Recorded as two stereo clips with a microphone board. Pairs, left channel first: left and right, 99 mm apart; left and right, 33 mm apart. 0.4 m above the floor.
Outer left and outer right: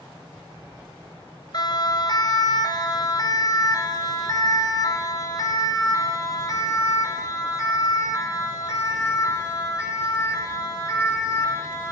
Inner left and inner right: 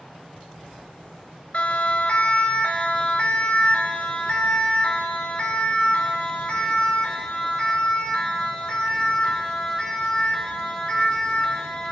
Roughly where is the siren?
Left.